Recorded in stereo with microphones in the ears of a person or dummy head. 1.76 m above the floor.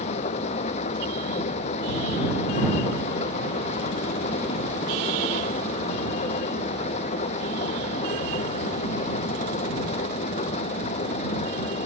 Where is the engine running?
40° left (ahead or behind).